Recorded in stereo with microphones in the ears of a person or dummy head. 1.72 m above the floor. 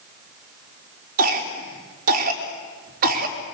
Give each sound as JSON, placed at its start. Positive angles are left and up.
{"t": 1.2, "sound": "a cough", "side_deg": -50, "distance_m": 4.0}